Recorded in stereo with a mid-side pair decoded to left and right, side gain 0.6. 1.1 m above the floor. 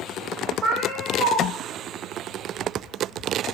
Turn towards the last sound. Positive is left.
turn(degrees=-65)